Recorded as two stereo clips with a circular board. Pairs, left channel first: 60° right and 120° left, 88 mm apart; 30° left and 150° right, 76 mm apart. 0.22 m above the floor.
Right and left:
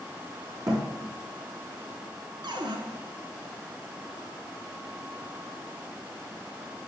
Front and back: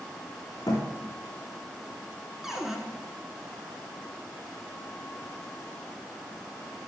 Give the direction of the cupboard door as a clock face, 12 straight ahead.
8 o'clock.